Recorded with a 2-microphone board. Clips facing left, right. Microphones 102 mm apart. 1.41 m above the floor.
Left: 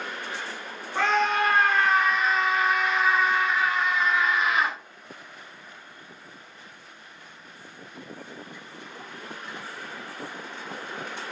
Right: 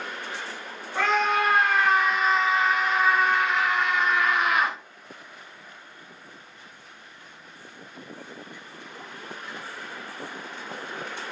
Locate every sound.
0.9 s a scream: centre (ahead or behind), 1.2 m; by 4.8 s 55° right (ahead or behind), 1.0 m